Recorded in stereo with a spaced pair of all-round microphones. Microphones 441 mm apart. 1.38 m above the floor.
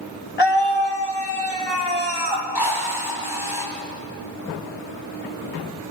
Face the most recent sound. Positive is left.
turn(degrees=55)  # may be behind; listen again after turning